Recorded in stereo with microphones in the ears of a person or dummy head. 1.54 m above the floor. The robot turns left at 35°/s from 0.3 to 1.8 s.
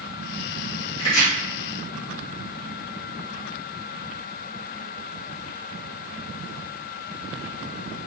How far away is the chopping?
About 1.4 m.